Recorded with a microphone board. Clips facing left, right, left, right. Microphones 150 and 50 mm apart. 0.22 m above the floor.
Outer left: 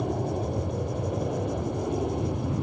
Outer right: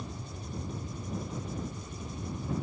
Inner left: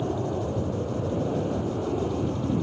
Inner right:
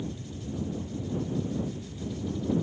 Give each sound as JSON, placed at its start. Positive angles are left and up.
{"t": 0.0, "sound": "an aircraft", "side_deg": 70}